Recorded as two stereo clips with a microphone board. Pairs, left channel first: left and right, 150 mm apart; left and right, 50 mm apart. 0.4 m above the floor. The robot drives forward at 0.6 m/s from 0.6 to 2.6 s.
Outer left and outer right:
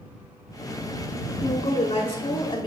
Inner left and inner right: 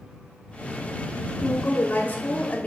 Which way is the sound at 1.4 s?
40° left (ahead or behind).